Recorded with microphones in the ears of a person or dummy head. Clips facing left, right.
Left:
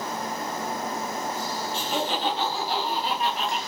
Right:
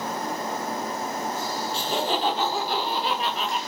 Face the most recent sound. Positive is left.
turn(degrees=-80)